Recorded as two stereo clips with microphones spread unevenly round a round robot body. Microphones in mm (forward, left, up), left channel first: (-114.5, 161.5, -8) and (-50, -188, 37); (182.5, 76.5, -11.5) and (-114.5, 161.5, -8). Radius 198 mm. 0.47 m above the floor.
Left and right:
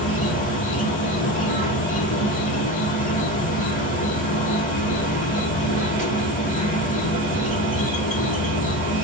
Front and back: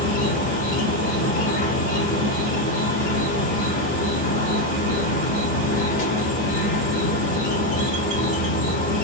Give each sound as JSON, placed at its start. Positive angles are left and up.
{"t": 0.0, "sound": "an insect", "azimuth_deg": 35, "distance_m": 1.7}